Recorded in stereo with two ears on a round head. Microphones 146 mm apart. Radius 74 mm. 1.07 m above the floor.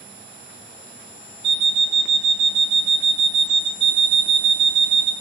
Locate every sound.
1.4 s an alarm clock: 70° right (ahead or behind), 0.8 m
3.8 s an alarm clock: 30° right (ahead or behind), 1.1 m